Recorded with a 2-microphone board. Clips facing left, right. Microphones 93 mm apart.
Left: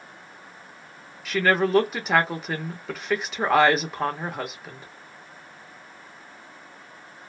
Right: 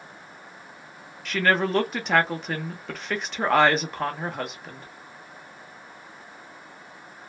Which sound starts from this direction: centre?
A woman speaking, at 1.2 s.